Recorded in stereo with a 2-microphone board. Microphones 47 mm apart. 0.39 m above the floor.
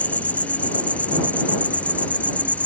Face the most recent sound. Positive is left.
turn(degrees=30)  # may be behind; listen again after turning